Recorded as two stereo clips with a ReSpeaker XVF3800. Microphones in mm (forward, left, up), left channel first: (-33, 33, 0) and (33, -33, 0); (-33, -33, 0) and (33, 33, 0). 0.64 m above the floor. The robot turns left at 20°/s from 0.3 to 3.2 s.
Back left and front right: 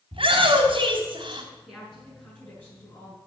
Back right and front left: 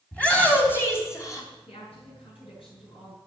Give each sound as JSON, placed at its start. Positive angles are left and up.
{"t": 0.1, "sound": "a shout", "azimuth_deg": -60, "distance_m": 3.5}
{"t": 1.7, "sound": "a woman speaking", "azimuth_deg": -135, "distance_m": 7.0}